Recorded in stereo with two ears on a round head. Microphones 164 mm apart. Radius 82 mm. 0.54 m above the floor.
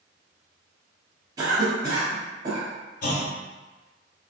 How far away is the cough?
About 0.7 m.